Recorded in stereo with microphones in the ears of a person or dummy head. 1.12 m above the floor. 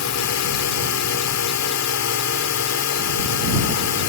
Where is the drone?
75° left (ahead or behind).